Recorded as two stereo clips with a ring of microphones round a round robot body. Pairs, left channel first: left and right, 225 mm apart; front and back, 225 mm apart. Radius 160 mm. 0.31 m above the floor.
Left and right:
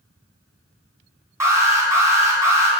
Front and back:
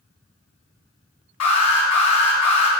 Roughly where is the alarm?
Ahead.